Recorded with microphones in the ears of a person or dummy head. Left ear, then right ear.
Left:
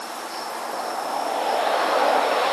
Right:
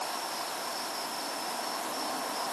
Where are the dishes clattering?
I don't hear dishes clattering.